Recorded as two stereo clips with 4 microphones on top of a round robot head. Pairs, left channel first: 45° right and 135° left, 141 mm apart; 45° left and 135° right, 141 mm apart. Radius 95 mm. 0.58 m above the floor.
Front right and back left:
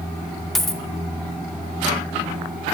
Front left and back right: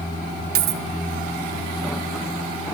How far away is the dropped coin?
About 0.7 m.